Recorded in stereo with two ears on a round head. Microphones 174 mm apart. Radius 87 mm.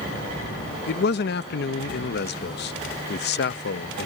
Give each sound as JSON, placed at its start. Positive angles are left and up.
{"t": 0.9, "sound": "a man speaking", "side_deg": 50}